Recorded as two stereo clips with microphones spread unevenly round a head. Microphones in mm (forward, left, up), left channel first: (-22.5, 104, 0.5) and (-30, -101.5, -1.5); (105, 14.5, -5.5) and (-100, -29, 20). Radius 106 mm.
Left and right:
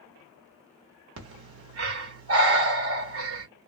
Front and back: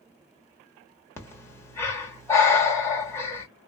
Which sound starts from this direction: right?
Breathing, at 1.2 s.